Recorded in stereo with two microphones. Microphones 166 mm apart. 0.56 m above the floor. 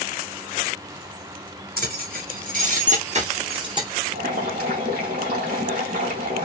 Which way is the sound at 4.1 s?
70° right (ahead or behind).